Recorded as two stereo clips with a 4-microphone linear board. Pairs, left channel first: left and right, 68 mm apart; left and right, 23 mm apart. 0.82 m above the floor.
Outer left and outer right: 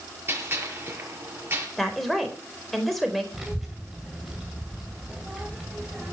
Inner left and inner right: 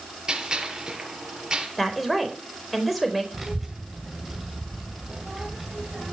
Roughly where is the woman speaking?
Centre.